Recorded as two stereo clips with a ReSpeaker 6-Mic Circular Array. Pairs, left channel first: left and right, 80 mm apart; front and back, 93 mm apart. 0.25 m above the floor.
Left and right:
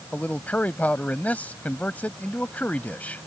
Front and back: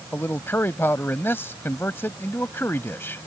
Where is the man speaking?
40° left.